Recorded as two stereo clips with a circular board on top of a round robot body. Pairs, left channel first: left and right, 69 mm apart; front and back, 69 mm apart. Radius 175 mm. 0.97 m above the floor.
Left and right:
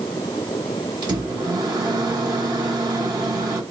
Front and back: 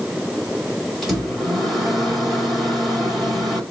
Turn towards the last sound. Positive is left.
turn(degrees=-85)